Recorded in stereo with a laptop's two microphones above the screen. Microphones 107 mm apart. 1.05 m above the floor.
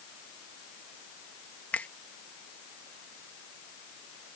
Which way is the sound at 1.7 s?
15° left (ahead or behind).